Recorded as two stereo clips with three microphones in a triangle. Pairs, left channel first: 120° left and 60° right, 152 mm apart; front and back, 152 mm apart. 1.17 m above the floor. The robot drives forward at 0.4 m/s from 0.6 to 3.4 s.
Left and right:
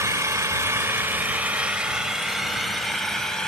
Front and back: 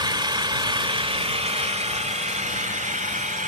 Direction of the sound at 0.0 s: 125° right.